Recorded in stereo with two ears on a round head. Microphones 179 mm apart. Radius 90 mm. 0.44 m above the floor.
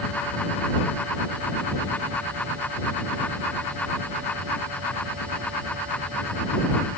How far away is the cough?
No cough in this recording.